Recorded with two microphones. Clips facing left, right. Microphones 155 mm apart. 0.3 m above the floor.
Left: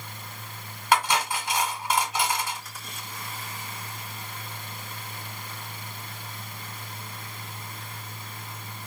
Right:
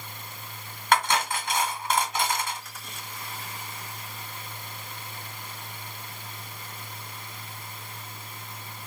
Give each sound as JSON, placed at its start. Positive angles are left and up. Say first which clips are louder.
{"t": 0.9, "sound": "cutlery clinking", "louder": "even", "side_deg": 5, "distance_m": 1.0}